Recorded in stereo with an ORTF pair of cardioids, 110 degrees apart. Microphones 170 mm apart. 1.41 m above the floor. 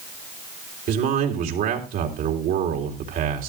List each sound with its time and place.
0.9 s a man speaking: 70° right, 3.5 m